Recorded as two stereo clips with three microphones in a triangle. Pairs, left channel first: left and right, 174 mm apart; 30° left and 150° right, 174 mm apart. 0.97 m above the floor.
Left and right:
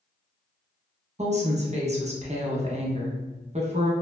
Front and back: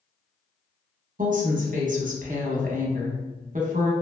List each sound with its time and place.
1.2 s a woman speaking: 130° right, 0.7 m